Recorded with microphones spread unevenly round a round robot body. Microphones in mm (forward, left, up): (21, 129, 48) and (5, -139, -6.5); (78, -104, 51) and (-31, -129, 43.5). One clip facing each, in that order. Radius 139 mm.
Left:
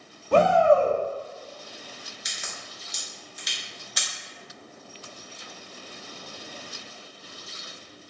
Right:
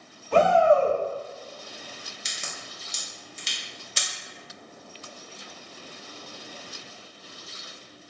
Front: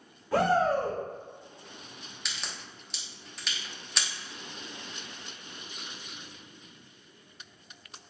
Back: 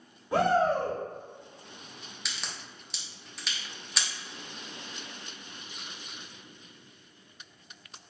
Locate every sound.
0.3 s a shout: 130° left, 0.9 m
2.2 s a crack: 85° right, 0.9 m